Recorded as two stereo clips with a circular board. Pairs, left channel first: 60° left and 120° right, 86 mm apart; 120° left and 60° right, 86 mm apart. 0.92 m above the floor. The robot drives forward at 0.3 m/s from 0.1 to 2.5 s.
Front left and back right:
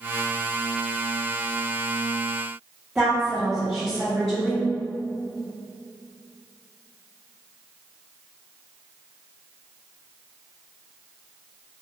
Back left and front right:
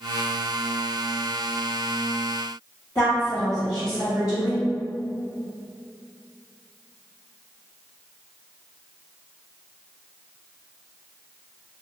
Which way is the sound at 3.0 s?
155° left.